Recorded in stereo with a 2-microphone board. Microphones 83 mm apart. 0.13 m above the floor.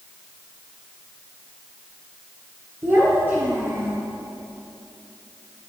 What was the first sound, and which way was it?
A child speaking, 25° right (ahead or behind).